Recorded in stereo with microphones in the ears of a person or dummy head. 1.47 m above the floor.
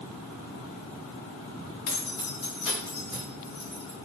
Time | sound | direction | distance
1.9 | keys jangling | 60° left (ahead or behind) | 0.9 m